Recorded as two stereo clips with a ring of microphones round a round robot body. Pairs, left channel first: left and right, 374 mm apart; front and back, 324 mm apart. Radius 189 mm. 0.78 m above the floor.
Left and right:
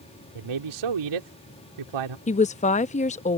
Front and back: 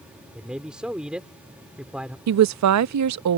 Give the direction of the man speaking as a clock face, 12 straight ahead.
3 o'clock.